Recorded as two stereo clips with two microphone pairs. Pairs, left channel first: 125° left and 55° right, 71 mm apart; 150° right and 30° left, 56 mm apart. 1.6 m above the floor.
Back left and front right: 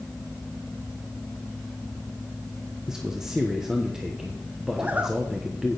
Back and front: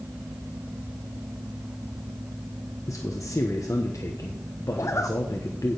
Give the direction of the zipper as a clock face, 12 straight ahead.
4 o'clock.